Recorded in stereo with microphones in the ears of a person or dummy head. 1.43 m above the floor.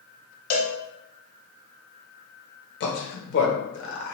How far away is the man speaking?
About 0.9 m.